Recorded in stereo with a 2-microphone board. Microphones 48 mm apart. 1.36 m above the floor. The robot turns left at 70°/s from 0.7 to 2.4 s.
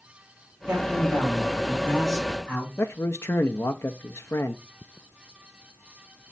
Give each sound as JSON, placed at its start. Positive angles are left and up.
{"t": 0.7, "sound": "a man speaking", "azimuth_deg": -75, "distance_m": 4.0}
{"t": 2.8, "sound": "a man speaking", "side_deg": 60, "distance_m": 0.5}